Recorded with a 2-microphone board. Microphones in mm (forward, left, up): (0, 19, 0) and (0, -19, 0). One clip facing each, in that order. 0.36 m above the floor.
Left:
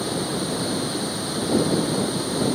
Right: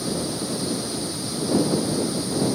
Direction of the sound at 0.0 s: 45° left (ahead or behind).